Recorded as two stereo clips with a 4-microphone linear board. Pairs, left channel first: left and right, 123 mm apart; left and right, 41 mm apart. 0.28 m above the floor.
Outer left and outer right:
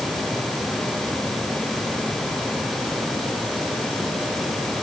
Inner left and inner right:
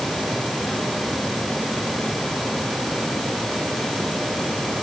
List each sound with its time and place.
Only background noise.